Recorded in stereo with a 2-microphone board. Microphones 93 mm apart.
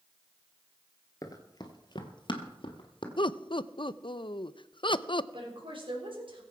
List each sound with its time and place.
1.2 s running footsteps: 40° left (ahead or behind), 1.5 m; by 3.1 s 60° left (ahead or behind), 2 m
3.2 s laughter: 60° left (ahead or behind), 0.5 m
5.3 s a woman speaking: 65° right (ahead or behind), 4 m